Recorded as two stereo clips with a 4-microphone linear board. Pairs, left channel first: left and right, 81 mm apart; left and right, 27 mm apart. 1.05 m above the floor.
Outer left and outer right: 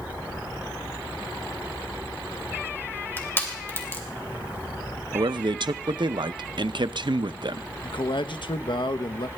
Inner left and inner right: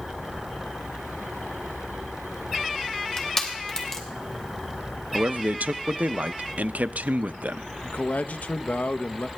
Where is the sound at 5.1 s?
75° right (ahead or behind), 0.5 m.